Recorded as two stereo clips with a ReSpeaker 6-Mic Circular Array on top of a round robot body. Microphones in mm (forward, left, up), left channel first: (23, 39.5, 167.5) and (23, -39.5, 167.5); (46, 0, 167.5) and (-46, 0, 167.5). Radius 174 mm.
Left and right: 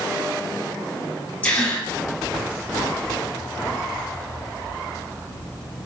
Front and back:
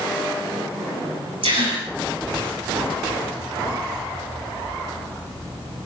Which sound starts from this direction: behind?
A gasp, at 1.4 s.